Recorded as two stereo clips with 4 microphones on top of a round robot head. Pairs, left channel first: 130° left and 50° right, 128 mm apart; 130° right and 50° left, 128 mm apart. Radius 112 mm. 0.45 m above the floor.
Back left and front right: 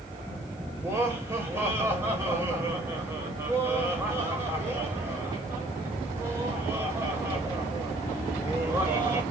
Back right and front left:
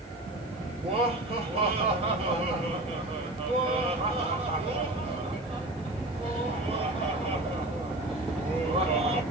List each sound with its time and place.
0.8 s laughter: 15° left, 1.9 m